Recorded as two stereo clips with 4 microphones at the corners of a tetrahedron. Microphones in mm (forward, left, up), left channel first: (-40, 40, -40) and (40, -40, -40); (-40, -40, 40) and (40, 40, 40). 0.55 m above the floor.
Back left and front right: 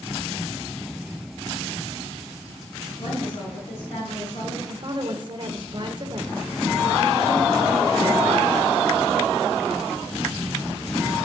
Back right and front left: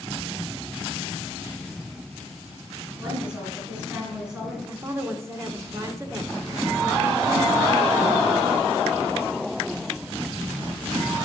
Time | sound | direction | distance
3.0 | a woman speaking | 125° left | 7.5 m
4.7 | a woman speaking | 15° right | 1.8 m